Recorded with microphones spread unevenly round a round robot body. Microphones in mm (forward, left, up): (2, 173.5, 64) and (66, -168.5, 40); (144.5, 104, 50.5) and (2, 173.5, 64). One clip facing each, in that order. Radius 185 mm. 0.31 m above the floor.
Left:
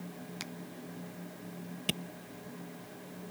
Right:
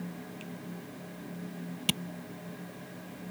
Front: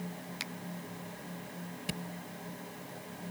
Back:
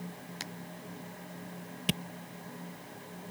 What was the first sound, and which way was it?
A finger snap, 115° left.